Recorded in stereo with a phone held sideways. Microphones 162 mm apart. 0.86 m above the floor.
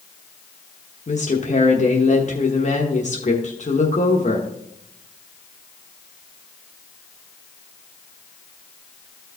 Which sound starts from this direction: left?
A woman speaking, at 1.1 s.